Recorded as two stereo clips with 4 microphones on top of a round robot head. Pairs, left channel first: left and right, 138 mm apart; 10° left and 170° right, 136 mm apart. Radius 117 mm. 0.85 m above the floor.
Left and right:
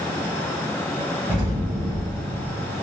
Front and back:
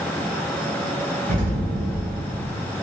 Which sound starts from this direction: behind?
An explosion, at 1.3 s.